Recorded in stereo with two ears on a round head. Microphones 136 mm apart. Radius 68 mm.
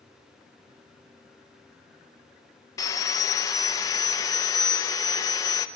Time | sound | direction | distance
2.8 | sawing | 20° left (ahead or behind) | 0.6 m